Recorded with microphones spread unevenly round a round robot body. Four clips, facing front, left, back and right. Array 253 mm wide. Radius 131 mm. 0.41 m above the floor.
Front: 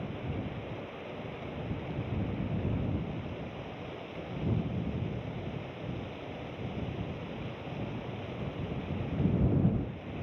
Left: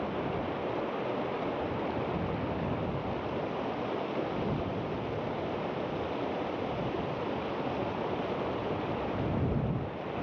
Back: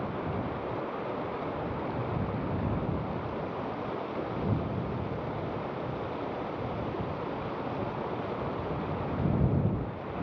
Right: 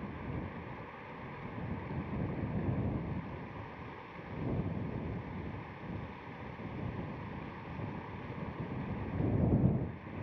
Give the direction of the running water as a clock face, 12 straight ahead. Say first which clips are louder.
Left 10 dB, back 5 dB; 8 o'clock.